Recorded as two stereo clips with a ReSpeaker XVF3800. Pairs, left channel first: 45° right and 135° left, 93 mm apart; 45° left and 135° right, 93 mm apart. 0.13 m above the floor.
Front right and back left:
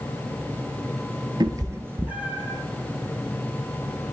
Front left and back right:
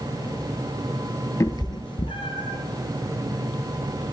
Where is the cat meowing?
100° left, 0.7 m; by 2.6 s 50° left, 1.3 m.